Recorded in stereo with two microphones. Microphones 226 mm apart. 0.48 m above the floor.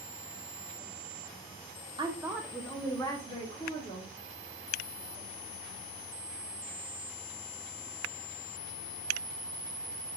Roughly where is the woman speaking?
Right.